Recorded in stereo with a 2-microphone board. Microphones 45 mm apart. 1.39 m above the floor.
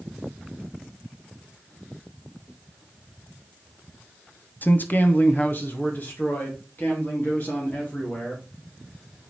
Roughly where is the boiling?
No boiling in this recording.